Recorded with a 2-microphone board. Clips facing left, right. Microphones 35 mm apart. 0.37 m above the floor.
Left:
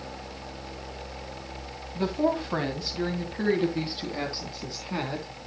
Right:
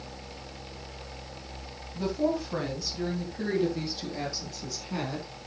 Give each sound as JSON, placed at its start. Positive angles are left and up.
{"t": 1.9, "sound": "a woman speaking", "side_deg": 45, "distance_m": 2.5}